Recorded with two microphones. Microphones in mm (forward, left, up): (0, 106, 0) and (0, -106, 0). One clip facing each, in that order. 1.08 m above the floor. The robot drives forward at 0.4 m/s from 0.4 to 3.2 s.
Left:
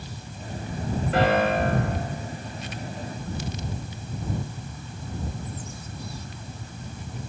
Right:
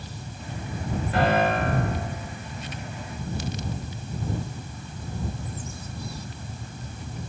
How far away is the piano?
About 2 m.